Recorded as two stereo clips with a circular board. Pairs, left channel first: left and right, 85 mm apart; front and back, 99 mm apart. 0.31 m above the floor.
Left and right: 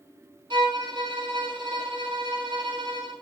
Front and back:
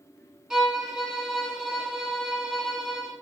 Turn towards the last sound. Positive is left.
turn(degrees=-100)